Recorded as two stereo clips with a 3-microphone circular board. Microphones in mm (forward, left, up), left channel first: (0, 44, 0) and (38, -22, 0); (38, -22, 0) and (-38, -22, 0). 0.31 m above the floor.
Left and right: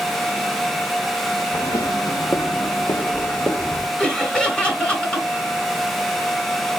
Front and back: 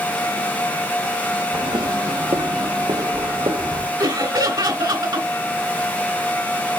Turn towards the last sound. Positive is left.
turn(degrees=-160)